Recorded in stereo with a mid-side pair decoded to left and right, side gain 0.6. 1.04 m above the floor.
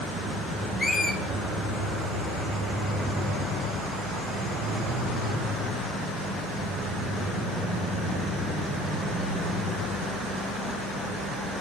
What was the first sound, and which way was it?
A squeak, 20° left.